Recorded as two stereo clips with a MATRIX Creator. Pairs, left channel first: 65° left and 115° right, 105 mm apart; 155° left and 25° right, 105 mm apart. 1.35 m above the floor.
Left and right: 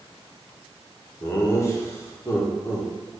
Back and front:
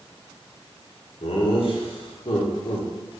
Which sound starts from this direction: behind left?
Laughter, at 1.2 s.